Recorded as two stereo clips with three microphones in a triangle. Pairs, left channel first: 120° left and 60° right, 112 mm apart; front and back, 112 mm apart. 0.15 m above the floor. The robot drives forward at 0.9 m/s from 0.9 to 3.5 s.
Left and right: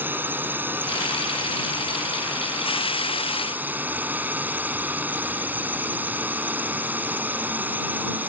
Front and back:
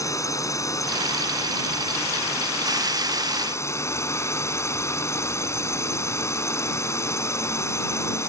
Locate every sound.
0.0 s a drone: 10° right